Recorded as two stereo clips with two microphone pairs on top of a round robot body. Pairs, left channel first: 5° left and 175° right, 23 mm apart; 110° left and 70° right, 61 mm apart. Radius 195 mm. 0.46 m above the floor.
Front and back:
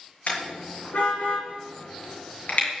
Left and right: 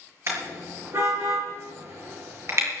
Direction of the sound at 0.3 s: 30° right.